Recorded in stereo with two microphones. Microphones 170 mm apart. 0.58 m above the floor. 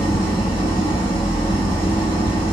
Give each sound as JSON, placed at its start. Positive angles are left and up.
{"t": 0.0, "sound": "an engine running", "side_deg": 25, "distance_m": 1.5}